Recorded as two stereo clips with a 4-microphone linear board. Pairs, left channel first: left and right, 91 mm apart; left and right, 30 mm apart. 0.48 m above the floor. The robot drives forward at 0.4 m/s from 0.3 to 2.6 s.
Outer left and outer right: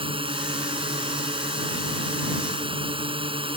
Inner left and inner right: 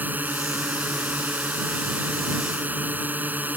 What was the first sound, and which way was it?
A drone, 75° right (ahead or behind).